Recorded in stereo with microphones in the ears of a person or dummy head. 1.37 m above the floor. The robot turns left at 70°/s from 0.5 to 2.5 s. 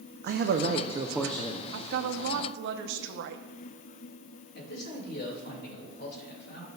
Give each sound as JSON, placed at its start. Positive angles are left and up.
{"t": 0.2, "sound": "a man speaking", "azimuth_deg": -130, "distance_m": 0.5}
{"t": 1.7, "sound": "a woman speaking", "azimuth_deg": -70, "distance_m": 0.7}
{"t": 4.5, "sound": "a man speaking", "side_deg": 55, "distance_m": 2.0}